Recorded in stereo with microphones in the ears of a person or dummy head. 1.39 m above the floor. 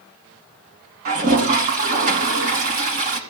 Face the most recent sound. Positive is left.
turn(degrees=-45)  # may be behind; listen again after turning